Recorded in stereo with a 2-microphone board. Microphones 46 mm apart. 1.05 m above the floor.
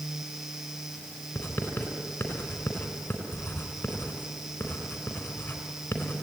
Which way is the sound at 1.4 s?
40° left (ahead or behind).